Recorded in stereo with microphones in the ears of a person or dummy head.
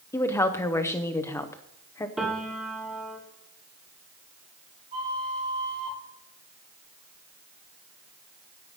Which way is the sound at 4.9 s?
30° right (ahead or behind).